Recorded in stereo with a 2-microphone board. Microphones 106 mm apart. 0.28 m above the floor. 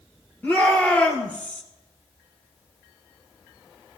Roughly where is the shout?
Centre.